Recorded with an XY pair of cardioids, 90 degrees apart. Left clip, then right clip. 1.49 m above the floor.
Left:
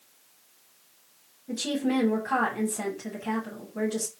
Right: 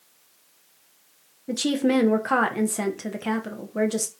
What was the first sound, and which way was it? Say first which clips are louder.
A woman speaking: right 6 dB; 70° right.